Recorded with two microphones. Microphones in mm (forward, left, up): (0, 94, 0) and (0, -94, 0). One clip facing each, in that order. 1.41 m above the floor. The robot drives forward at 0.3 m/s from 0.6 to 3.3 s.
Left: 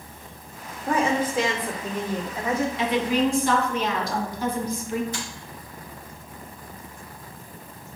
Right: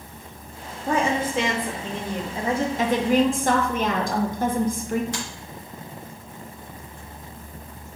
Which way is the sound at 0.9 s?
20° right (ahead or behind).